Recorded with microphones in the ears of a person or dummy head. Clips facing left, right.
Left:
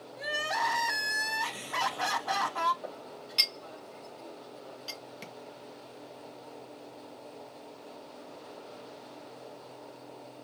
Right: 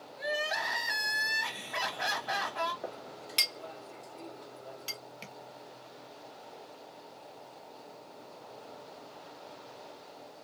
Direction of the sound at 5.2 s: 15° left (ahead or behind).